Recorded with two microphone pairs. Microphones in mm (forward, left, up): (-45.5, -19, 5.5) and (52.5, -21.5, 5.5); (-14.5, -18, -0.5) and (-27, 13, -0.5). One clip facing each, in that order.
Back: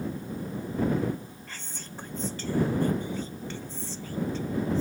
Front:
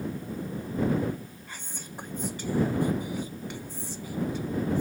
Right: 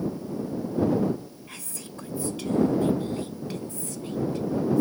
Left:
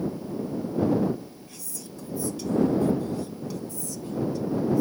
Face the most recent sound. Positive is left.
turn(degrees=-75)